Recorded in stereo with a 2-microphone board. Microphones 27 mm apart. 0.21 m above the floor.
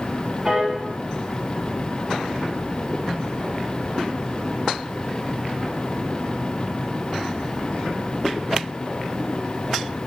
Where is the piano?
15° right (ahead or behind), 1.0 m.